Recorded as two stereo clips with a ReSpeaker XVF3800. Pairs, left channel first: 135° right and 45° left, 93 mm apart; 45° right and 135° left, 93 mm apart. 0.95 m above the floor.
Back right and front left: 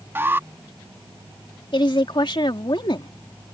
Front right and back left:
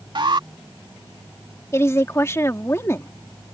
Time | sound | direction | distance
0.1 | an alarm | 110° left | ?
1.7 | a woman speaking | 105° right | ?